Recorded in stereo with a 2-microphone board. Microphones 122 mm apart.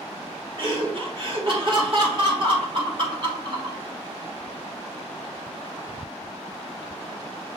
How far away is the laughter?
About 1.4 m.